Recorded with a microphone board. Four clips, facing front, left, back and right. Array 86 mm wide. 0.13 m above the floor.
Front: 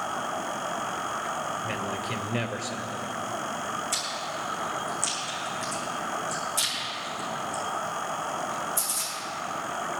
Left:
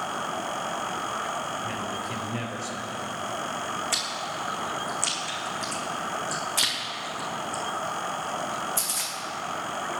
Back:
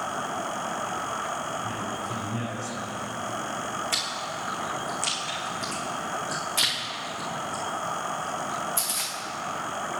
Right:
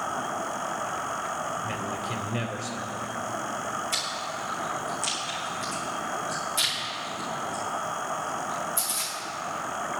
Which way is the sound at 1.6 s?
Straight ahead.